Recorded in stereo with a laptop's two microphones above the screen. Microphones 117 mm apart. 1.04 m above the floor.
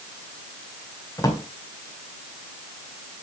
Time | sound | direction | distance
1.2 | a drawer | 30° left (ahead or behind) | 2 m